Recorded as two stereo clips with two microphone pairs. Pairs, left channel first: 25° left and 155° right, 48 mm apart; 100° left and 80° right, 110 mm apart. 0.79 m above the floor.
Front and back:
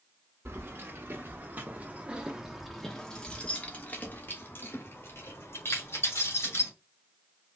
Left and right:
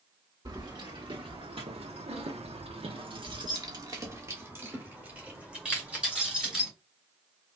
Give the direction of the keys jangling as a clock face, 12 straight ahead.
4 o'clock.